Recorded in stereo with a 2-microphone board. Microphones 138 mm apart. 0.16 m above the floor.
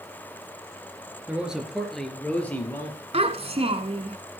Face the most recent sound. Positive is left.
turn(degrees=-45)  # may be behind; listen again after turning